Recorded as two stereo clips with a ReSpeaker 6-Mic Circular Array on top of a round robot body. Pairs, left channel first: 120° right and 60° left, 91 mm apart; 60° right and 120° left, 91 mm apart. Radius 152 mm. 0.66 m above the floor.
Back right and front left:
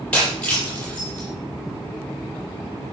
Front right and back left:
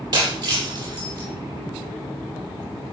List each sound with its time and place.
0.1 s breaking glass: 160° left, 7.5 m